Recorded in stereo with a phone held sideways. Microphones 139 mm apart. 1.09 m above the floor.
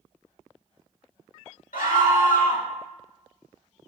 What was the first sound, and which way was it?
A scream, 80° left.